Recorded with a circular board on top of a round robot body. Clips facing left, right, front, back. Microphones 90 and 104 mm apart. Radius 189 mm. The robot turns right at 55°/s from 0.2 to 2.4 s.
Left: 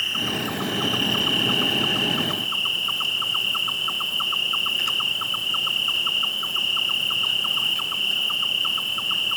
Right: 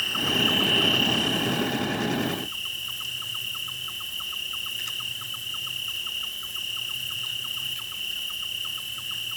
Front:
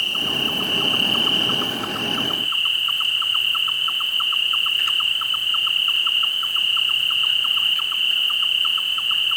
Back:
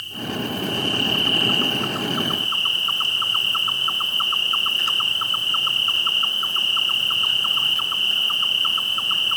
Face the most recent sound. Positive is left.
turn(degrees=115)